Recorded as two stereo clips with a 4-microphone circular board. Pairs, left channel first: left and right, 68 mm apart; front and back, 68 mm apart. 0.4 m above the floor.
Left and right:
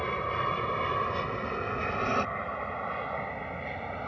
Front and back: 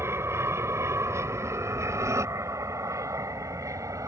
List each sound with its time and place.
0.0 s an aircraft: 165° left; by 4.1 s straight behind